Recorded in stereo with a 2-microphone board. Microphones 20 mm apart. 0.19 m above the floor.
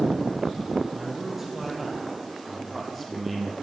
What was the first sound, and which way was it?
A man speaking, 20° right (ahead or behind).